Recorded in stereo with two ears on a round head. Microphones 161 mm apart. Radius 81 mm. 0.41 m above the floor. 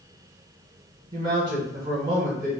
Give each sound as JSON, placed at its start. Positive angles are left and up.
{"t": 1.1, "sound": "a man speaking", "side_deg": -25, "distance_m": 1.5}